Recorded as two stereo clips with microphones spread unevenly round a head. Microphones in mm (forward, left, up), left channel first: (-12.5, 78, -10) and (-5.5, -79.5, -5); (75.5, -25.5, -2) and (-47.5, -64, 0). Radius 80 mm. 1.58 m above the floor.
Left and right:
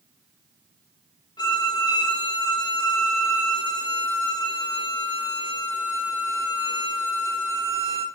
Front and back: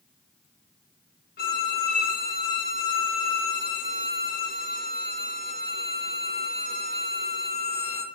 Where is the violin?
25° left, 2.5 m.